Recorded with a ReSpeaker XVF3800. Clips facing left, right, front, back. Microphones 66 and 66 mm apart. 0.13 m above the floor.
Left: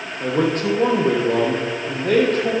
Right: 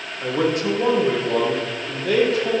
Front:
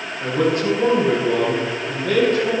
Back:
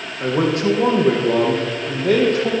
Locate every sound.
0.2 s a man speaking: 135° left, 3.5 m